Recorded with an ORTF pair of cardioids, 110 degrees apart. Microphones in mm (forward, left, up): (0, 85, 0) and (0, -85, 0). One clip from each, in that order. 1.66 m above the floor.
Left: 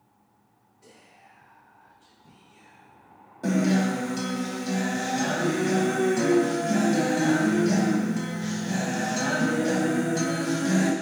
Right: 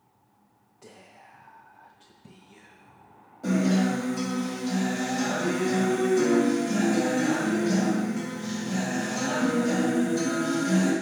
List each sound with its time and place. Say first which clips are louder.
0.8 s whispering: right 3 dB; 55° right, 0.9 m
3.4 s a guitar: left 1 dB; 35° left, 1.5 m